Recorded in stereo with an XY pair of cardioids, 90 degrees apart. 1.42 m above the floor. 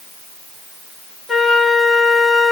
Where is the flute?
25° left, 1.9 m.